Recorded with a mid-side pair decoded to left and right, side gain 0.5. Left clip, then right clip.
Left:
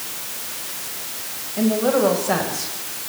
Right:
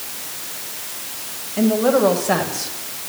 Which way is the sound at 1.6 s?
25° right.